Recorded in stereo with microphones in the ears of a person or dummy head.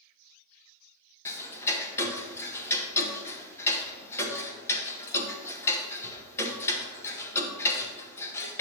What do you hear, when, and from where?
1.2 s ticking: 15° left (ahead or behind), 0.9 m